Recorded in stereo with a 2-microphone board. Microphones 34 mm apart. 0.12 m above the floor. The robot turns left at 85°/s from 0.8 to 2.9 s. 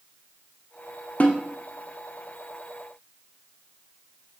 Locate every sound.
1.2 s a snare drum: 45° left (ahead or behind), 1.8 m; by 1.4 s 60° left (ahead or behind), 1.8 m